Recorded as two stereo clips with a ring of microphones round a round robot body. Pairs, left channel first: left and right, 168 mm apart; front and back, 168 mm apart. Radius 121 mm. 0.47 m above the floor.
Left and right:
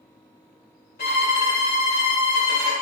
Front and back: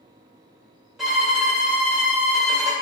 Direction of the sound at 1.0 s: 95° left.